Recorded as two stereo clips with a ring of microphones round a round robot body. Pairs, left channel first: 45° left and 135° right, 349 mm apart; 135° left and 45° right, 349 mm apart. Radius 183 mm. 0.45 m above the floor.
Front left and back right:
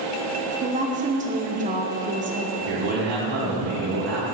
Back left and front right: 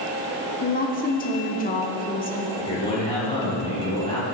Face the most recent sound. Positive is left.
turn(degrees=-150)